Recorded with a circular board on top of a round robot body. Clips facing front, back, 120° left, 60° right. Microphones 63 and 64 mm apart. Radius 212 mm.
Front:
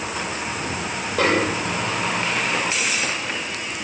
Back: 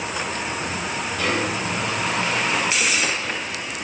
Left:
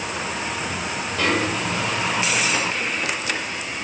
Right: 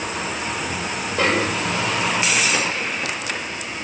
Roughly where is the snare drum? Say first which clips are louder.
Front 5 dB, right 2 dB; ahead.